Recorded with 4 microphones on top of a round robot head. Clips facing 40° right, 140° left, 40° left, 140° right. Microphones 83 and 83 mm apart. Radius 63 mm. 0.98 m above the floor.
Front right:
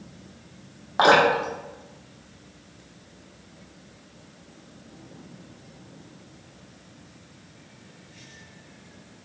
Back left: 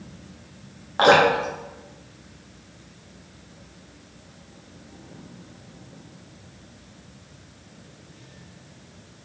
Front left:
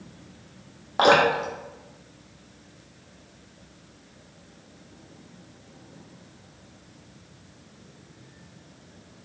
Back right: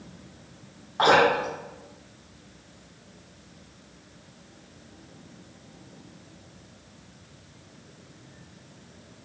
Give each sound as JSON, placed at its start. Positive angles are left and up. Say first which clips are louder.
{"t": 1.0, "sound": "dripping", "louder": "back left 1 dB, front left 1 dB", "azimuth_deg": 30, "distance_m": 1.0}